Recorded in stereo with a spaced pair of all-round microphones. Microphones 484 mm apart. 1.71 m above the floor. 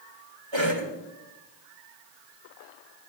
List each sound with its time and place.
0.5 s a cough: 60° right (ahead or behind), 2.5 m